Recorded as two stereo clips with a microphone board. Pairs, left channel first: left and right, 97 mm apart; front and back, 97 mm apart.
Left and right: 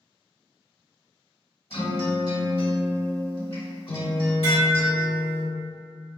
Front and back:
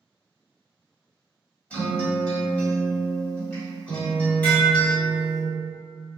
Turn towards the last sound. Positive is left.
turn(degrees=75)